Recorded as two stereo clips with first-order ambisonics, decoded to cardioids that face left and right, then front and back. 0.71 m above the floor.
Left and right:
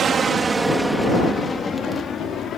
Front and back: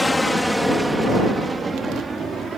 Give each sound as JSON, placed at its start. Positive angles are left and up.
{"t": 0.0, "sound": "an aircraft", "azimuth_deg": -75}